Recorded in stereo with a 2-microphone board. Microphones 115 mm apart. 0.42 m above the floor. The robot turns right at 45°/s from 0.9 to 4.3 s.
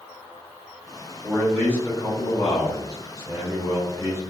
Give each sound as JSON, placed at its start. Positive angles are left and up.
{"t": 1.2, "sound": "a man speaking", "azimuth_deg": 5, "distance_m": 1.5}